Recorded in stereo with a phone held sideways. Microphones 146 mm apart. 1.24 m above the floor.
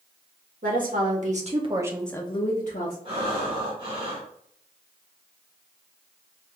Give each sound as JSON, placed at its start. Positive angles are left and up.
{"t": 0.6, "sound": "a woman speaking", "side_deg": -65, "distance_m": 1.6}
{"t": 3.0, "sound": "breathing", "side_deg": -35, "distance_m": 1.6}